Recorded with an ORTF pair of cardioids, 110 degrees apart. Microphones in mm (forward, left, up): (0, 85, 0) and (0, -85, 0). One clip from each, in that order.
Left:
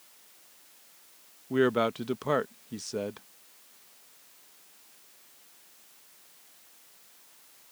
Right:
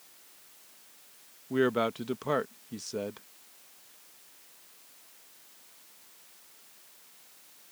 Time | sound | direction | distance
1.5 | a man speaking | 15° left | ?